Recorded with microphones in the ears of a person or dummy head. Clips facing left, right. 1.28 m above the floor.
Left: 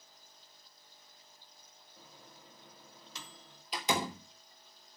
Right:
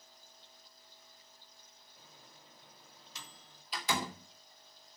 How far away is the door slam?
About 2 m.